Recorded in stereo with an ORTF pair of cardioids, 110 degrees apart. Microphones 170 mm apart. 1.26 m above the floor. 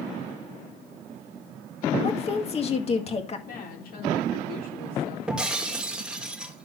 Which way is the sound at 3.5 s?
60° left.